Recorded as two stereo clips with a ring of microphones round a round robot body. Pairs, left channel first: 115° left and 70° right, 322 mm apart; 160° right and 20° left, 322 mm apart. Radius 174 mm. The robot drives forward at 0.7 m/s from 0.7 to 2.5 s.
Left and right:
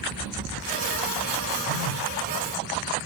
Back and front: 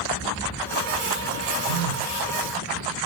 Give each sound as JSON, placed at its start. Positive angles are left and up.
{"t": 1.7, "sound": "a phone buzzing", "azimuth_deg": 20, "distance_m": 0.8}